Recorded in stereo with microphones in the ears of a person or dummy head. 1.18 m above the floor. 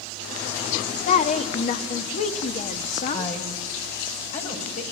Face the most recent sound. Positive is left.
turn(degrees=40)  # may be behind; listen again after turning